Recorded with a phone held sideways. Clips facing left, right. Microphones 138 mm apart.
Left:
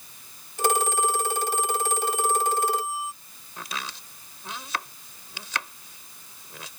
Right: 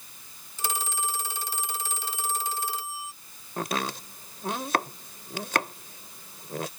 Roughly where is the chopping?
Right.